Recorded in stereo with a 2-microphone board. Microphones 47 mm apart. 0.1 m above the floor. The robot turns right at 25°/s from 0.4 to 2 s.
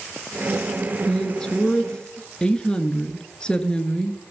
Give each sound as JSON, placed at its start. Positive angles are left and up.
{"t": 1.1, "sound": "a woman speaking", "side_deg": 10, "distance_m": 1.1}